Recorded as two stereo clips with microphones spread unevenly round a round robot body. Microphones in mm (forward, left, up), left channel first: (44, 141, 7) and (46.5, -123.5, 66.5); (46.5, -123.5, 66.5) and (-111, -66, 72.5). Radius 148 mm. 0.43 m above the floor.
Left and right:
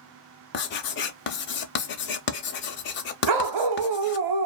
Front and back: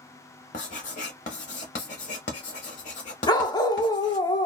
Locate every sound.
0.5 s writing: 40° left, 0.5 m
3.3 s a dog barking: 90° right, 0.7 m